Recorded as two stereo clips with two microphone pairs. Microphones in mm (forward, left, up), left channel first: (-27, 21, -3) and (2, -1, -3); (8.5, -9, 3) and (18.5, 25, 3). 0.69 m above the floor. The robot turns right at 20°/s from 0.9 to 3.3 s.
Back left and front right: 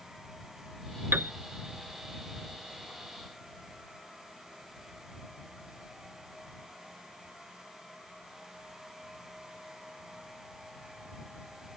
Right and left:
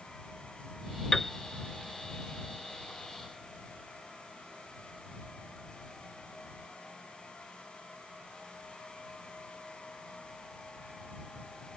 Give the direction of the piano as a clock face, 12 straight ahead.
1 o'clock.